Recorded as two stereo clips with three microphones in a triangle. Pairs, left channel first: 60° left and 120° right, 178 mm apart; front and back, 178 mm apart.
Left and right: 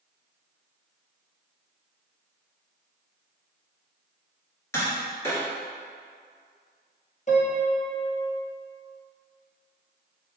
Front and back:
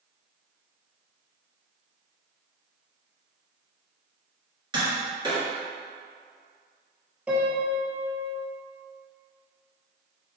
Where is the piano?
100° left, 1.0 m.